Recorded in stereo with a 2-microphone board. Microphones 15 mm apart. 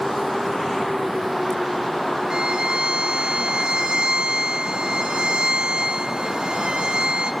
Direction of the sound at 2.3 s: 80° right.